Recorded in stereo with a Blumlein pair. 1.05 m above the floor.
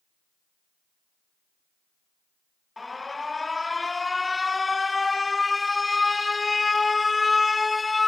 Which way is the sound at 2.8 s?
10° left.